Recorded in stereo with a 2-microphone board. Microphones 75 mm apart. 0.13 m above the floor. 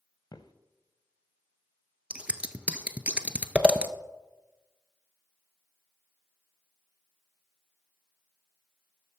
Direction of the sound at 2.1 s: 15° right (ahead or behind).